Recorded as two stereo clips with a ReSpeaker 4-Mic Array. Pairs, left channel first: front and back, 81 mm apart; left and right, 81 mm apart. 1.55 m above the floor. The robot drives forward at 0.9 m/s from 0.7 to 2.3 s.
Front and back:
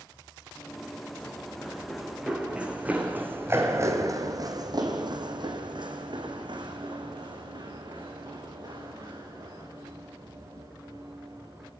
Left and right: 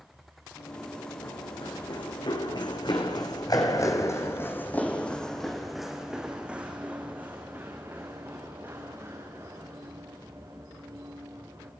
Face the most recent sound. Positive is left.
turn(degrees=-140)